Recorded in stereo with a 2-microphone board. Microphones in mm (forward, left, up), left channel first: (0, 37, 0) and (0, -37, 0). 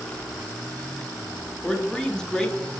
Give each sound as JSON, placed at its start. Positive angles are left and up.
{"t": 1.6, "sound": "a man speaking", "side_deg": 10, "distance_m": 0.6}